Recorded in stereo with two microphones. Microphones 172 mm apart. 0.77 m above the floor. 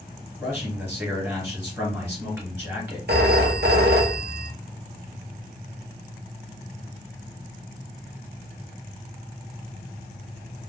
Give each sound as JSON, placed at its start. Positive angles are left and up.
{"t": 0.4, "sound": "a man speaking", "side_deg": -15, "distance_m": 2.5}
{"t": 3.1, "sound": "a phone ringing", "side_deg": -75, "distance_m": 0.8}